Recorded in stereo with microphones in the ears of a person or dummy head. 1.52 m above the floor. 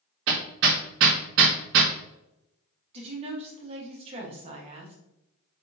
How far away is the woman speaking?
About 1.1 m.